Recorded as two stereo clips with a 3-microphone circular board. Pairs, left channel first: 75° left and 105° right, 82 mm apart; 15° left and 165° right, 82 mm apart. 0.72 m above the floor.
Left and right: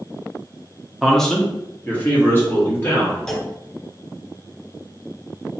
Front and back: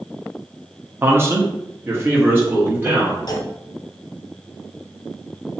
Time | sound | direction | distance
1.0 | a man speaking | 170° left | 0.5 m
3.3 | a clunk | 5° right | 0.5 m